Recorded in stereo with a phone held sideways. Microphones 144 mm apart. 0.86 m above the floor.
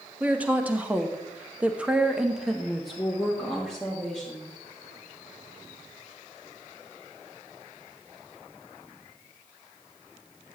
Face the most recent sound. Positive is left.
turn(degrees=5)  # may be behind; listen again after turning